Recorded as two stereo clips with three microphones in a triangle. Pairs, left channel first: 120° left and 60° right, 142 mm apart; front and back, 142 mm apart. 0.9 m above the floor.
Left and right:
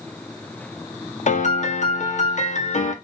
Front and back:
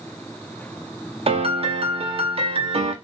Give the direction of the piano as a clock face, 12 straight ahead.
7 o'clock.